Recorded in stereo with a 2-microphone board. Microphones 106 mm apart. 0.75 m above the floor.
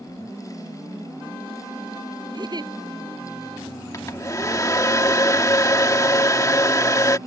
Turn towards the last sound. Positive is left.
turn(degrees=30)  # may be behind; listen again after turning